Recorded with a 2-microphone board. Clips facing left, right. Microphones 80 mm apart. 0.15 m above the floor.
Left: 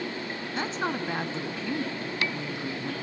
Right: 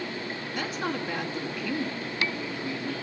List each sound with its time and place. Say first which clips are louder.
0.5 s a woman speaking: left 2 dB; 30° left (ahead or behind), 1.6 m